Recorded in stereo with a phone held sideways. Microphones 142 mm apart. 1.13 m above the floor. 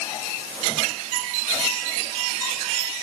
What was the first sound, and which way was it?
Only background noise.